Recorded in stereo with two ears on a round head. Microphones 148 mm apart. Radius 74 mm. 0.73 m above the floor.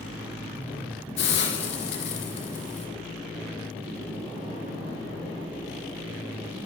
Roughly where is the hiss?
Left.